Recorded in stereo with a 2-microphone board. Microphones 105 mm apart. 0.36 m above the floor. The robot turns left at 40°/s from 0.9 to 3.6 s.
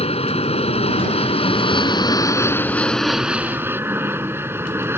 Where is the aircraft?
70° left (ahead or behind); by 5.0 s 25° right (ahead or behind).